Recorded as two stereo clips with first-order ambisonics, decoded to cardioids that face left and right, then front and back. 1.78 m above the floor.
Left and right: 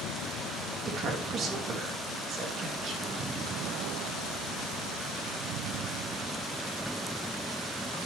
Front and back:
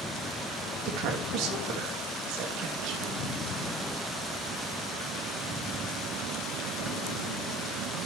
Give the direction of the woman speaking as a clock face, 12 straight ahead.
5 o'clock.